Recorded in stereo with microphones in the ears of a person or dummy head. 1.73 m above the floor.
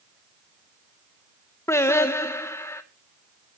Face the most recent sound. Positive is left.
turn(degrees=15)  # may be behind; listen again after turning